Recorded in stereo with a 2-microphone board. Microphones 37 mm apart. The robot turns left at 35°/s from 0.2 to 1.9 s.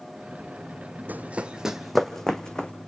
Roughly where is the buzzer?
No buzzer in this recording.